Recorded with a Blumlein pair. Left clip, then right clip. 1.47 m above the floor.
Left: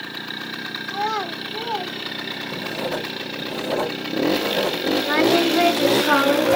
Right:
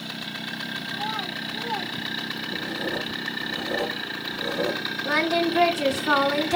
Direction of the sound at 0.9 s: 50° left.